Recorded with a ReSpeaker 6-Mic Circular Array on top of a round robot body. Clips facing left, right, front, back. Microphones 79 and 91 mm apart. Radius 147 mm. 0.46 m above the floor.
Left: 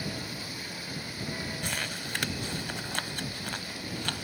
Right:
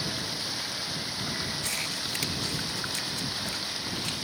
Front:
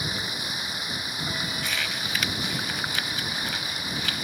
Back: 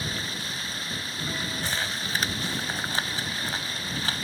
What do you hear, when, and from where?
0.0 s running water: 75° right
1.6 s crumpling: 125° left